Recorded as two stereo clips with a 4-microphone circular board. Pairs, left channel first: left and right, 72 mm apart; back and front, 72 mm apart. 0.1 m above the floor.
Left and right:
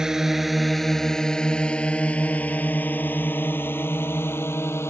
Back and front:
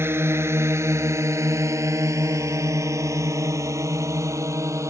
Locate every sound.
0.0 s a drone: 15° right; by 4.9 s 40° left